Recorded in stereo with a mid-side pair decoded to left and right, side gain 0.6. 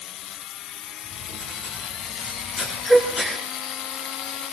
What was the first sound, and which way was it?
Writing, 40° left.